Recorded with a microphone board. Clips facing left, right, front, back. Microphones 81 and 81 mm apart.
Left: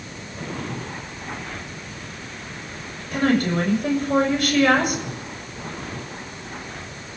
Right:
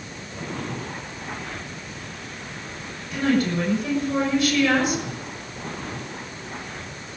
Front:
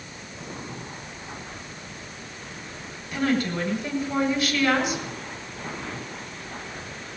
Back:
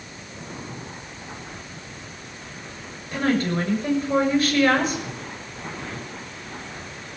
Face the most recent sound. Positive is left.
turn(degrees=130)